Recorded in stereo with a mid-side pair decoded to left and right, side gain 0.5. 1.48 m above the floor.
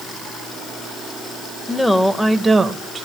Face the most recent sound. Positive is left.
turn(degrees=-35)